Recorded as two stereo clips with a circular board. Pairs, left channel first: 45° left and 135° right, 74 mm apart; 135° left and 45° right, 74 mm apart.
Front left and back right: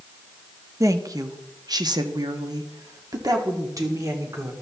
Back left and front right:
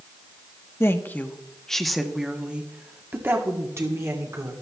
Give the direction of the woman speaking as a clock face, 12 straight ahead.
6 o'clock.